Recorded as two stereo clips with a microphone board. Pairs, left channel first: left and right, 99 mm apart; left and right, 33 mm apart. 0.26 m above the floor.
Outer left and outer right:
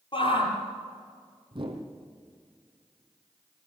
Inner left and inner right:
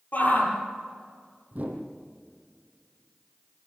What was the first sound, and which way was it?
A shout, 55° left (ahead or behind).